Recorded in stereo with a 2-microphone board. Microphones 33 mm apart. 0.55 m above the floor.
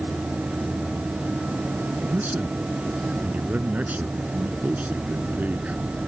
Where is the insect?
75° right (ahead or behind).